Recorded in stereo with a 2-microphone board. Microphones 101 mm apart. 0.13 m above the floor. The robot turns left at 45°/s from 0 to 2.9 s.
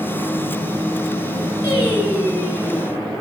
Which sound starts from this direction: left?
Singing, at 1.6 s.